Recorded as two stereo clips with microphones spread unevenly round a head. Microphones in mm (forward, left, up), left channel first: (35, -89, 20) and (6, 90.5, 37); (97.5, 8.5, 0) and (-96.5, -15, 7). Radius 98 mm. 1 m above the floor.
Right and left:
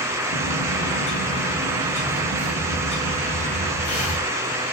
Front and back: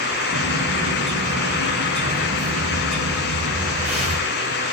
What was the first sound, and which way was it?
A bird, 90° right.